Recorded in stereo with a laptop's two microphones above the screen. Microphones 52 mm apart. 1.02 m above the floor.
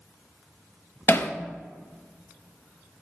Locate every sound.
1.1 s hammering: 45° left (ahead or behind), 0.6 m